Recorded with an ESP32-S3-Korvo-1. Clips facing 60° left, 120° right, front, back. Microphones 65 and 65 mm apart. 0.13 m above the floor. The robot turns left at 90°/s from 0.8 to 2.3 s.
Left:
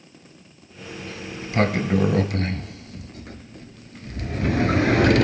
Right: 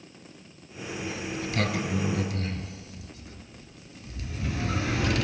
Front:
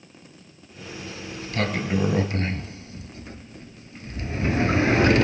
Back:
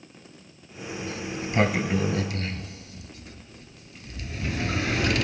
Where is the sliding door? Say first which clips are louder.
Even, back 4 dB; 160° left, 0.5 m; by 5.2 s 50° left, 0.5 m.